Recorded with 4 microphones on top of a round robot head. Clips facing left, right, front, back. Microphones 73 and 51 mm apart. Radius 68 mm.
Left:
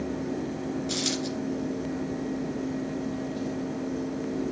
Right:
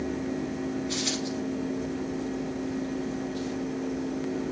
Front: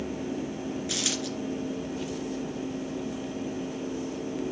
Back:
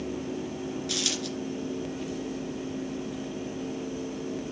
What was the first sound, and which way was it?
A dropped coin, 70° left.